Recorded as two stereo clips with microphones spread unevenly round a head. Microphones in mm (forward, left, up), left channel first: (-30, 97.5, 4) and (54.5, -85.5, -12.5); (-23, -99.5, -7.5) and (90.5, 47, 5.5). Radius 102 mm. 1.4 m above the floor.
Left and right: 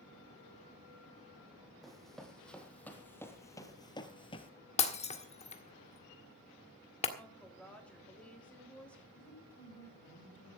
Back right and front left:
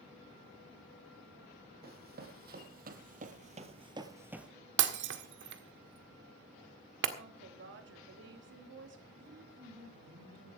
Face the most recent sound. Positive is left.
turn(degrees=90)